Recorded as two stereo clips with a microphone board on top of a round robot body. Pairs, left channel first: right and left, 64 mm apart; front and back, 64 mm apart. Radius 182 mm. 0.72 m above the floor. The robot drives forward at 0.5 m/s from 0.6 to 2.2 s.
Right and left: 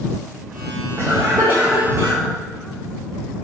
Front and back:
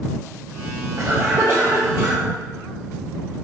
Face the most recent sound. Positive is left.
turn(degrees=145)